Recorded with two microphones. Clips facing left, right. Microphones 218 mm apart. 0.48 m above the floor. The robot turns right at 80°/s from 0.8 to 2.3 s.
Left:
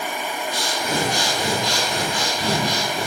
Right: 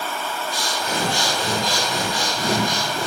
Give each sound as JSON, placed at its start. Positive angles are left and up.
{"t": 0.5, "sound": "breathing", "azimuth_deg": 110, "distance_m": 4.5}